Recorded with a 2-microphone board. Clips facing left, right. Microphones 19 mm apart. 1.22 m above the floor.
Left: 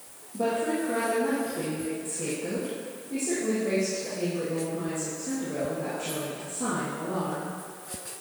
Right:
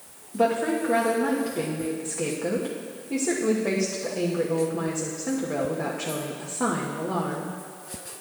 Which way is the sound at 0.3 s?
50° right (ahead or behind).